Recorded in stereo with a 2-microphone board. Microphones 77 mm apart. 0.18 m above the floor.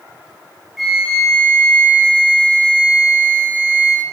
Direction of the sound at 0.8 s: Centre (ahead or behind).